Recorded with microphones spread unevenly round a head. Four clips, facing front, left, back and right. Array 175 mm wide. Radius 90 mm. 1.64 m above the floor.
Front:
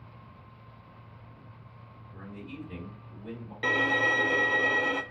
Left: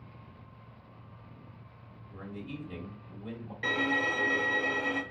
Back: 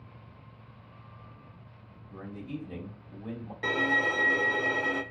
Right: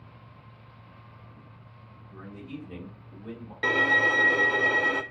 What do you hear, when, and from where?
2.1 s a man speaking: 170° left, 3.5 m
3.6 s a violin: 90° right, 0.7 m